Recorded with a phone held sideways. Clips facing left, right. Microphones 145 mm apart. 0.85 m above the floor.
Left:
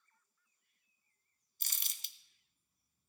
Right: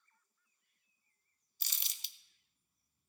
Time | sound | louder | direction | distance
1.6 | crumpling | even | 50° left (ahead or behind) | 0.6 m